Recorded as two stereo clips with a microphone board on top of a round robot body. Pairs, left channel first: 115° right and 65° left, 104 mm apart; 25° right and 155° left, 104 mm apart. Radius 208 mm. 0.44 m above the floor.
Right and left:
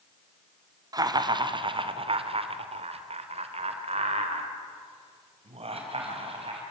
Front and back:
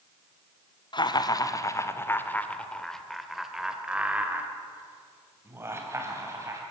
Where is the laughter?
15° left, 2 m; by 6.6 s 95° left, 4.5 m.